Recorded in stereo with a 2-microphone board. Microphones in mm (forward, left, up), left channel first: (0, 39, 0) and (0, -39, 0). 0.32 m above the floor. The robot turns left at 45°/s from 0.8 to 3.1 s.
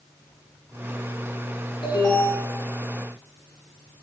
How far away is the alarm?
About 5 m.